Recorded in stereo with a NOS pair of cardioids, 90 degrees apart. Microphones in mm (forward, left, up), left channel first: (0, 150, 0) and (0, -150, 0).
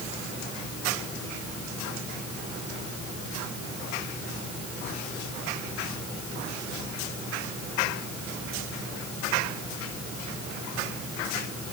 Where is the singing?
I don't hear singing.